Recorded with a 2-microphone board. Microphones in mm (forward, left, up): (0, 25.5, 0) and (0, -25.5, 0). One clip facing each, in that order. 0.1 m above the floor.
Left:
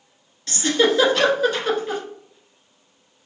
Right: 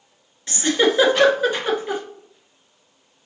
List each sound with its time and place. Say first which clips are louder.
0.5 s a giggle: even; 20° right (ahead or behind), 1.1 m